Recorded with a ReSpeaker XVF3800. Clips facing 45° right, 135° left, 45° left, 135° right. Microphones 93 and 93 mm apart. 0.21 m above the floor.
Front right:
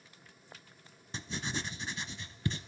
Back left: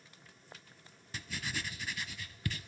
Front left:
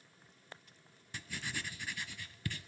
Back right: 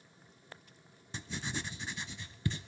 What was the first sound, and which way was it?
Writing, 85° right.